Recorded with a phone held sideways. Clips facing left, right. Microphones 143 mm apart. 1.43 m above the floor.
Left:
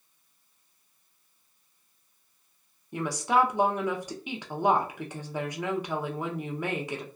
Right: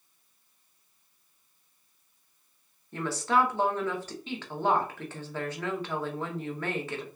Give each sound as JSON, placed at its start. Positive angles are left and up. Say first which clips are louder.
{"t": 2.9, "sound": "a woman speaking", "louder": "left 1 dB", "side_deg": 15, "distance_m": 0.7}